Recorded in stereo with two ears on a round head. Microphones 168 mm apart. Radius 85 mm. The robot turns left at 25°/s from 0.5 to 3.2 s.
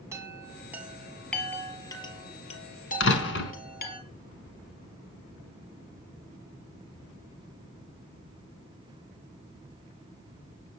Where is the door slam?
65° left (ahead or behind), 4 m; by 3.5 s 60° left (ahead or behind), 4 m.